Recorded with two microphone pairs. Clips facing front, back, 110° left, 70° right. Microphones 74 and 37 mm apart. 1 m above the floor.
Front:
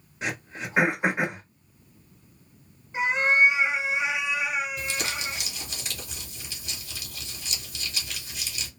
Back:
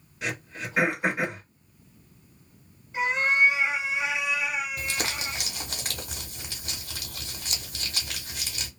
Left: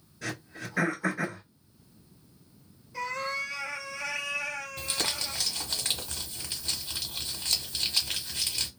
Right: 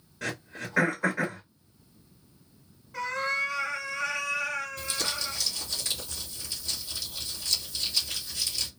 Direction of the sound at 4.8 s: 150° left.